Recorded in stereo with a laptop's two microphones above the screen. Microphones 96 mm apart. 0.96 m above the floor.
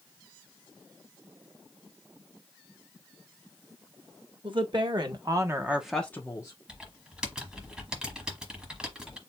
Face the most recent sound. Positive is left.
turn(degrees=-5)  # may be behind; listen again after turning